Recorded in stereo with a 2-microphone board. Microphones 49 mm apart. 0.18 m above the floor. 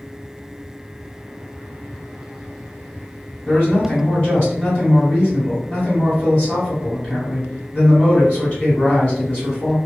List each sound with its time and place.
3.5 s a man speaking: 25° left (ahead or behind), 1.6 m